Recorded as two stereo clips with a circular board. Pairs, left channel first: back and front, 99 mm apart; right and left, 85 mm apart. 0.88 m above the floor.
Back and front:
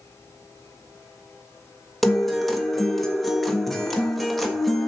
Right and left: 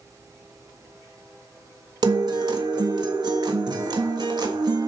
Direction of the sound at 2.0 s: 90° left.